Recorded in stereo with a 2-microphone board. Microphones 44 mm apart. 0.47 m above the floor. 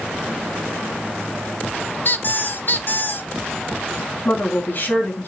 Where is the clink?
I don't hear a clink.